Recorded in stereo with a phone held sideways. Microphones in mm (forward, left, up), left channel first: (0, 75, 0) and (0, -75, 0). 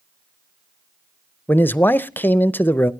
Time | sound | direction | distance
1.5 | a man speaking | 15° left (ahead or behind) | 0.6 m